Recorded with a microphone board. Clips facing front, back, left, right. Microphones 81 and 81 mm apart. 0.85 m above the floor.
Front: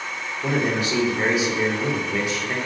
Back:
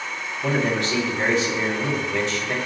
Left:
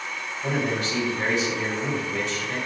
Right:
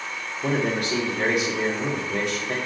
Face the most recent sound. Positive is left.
turn(degrees=-75)